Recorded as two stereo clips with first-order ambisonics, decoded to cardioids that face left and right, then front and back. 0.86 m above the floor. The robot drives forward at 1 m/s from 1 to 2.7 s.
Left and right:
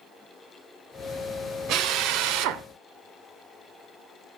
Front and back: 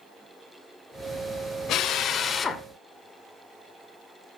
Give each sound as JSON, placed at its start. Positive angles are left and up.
{"t": 1.7, "sound": "a drill", "azimuth_deg": -50, "distance_m": 1.8}